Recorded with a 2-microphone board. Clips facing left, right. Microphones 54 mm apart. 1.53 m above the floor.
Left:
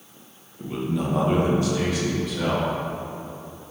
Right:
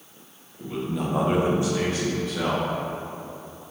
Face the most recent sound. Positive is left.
turn(degrees=-40)  # may be behind; listen again after turning